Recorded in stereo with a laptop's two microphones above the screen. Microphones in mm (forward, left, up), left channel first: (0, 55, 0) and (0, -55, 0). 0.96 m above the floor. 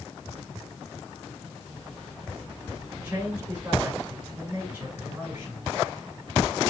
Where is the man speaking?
15° right (ahead or behind), 4.5 m.